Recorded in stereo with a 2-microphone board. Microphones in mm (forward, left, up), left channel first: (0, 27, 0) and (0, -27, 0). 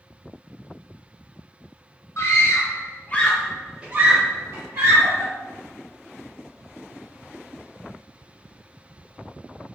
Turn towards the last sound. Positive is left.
turn(degrees=-65)  # may be behind; listen again after turning